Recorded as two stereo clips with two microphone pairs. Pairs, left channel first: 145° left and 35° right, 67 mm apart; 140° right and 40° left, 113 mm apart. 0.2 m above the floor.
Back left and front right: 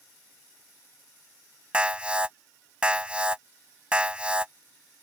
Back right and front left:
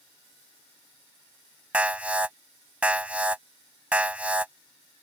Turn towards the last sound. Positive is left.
turn(degrees=-10)